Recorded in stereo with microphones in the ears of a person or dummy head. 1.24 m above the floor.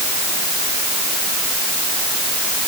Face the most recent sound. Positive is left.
No sound to turn to.